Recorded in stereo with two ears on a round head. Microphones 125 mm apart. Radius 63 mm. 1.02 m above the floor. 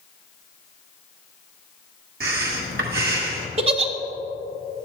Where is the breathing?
75° right (ahead or behind), 1.6 m.